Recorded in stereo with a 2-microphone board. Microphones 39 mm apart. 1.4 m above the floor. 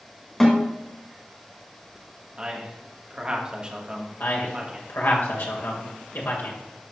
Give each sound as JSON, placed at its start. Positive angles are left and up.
{"t": 0.4, "sound": "a snare drum", "side_deg": 15, "distance_m": 2.0}
{"t": 2.4, "sound": "a man speaking", "side_deg": -25, "distance_m": 1.4}
{"t": 4.2, "sound": "a man speaking", "side_deg": 80, "distance_m": 1.8}